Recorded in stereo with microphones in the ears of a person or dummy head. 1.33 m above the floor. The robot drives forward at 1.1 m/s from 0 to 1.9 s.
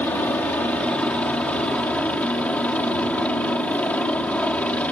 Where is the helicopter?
5° left (ahead or behind).